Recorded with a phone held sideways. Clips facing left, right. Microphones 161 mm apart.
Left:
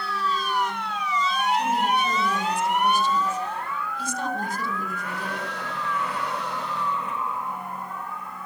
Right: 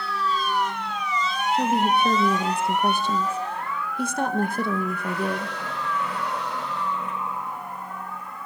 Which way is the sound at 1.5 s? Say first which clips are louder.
Right 5 dB; 60° right (ahead or behind).